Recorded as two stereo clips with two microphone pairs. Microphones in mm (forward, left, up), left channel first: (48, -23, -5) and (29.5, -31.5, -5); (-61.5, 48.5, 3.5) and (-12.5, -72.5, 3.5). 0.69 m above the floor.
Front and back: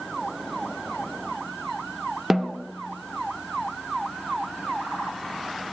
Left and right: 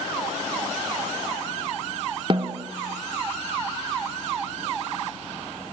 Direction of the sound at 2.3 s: 85° right.